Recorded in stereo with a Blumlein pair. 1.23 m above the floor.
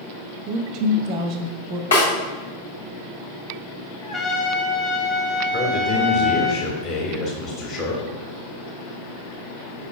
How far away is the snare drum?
About 1.5 m.